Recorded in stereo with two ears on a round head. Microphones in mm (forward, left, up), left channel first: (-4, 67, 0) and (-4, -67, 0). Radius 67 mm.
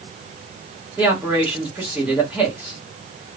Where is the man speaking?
10° right (ahead or behind), 1.6 m.